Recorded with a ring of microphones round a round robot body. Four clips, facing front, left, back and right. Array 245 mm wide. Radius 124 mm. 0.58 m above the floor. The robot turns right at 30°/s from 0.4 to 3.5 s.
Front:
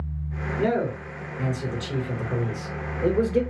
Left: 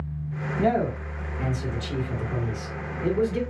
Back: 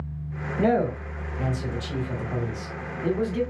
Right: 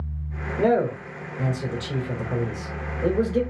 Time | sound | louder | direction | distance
0.6 | a man speaking | right 3 dB, back 2 dB | 100° right | 2.5 m